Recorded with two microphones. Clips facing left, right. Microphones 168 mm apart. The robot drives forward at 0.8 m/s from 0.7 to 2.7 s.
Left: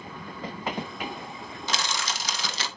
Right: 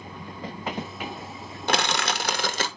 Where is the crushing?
60° right (ahead or behind), 0.8 m; by 2.7 s 50° right (ahead or behind), 1.0 m.